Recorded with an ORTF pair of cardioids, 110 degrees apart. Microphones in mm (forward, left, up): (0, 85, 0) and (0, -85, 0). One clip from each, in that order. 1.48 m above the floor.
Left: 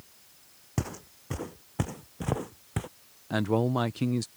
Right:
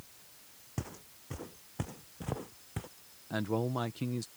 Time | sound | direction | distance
0.8 | footsteps | 50° left | ?
3.3 | a man speaking | 35° left | ?